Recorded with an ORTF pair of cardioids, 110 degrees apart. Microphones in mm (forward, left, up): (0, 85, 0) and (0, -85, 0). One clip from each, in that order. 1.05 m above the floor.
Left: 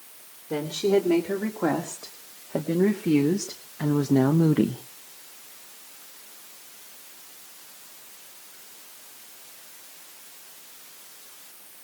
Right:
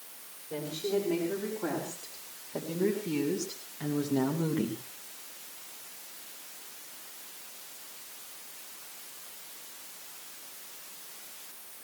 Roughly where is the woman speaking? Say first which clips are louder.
Left 9 dB; ahead left.